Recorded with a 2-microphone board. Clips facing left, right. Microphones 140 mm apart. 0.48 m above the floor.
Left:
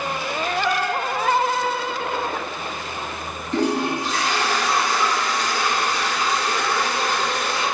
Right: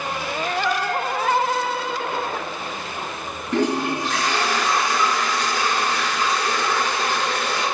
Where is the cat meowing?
Centre (ahead or behind), 2.5 m.